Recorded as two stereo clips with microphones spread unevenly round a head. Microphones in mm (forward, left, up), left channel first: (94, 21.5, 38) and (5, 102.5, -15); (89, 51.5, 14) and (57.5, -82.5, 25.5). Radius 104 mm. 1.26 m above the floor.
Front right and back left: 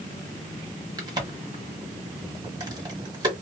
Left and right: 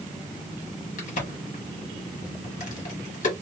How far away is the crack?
About 1.4 m.